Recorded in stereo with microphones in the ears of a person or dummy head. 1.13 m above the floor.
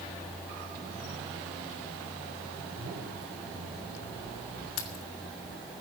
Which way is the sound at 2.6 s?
45° right (ahead or behind).